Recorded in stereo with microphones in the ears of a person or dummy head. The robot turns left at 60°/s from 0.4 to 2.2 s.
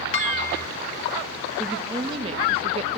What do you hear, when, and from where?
0.1 s dishes clattering: 40° left (ahead or behind), 2.5 m; by 0.6 s 25° left (ahead or behind), 2.5 m
1.6 s a woman speaking: 5° left, 1.6 m; by 3.0 s 35° right, 1.6 m